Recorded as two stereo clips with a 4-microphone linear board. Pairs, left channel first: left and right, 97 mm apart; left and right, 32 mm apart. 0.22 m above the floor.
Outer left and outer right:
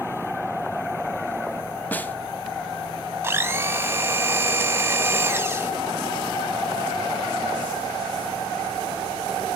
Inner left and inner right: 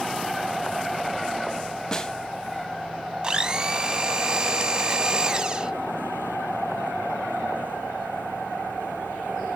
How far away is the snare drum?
About 0.7 m.